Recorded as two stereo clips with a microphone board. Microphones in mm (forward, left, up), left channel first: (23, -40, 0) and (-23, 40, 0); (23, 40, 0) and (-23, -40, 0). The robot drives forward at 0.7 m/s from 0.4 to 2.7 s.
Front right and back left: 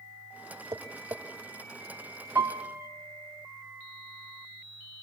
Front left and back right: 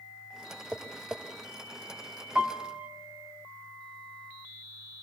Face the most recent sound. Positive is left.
turn(degrees=170)